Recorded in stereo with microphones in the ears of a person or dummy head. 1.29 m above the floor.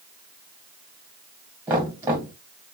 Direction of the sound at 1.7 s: 15° right (ahead or behind).